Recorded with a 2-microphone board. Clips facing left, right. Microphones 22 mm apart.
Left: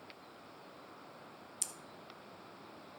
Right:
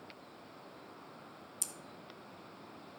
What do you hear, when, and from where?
1.6 s scissors: 15° left (ahead or behind), 0.8 m